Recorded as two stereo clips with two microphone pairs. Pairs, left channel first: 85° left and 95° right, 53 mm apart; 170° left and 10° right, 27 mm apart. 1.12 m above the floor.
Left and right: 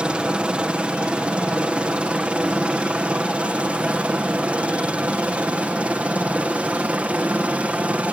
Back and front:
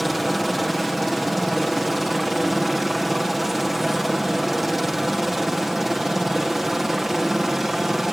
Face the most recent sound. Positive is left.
turn(degrees=-80)